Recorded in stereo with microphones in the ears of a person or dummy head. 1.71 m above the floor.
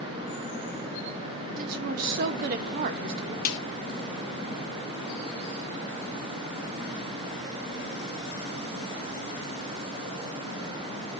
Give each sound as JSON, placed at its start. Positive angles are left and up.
{"t": 1.6, "sound": "a woman speaking", "side_deg": -50, "distance_m": 0.6}
{"t": 3.5, "sound": "a snare drum", "side_deg": 50, "distance_m": 0.9}